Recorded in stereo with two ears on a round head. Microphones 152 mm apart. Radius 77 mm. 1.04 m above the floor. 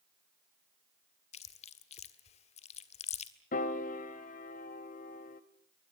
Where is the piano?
45° left (ahead or behind), 1.2 m.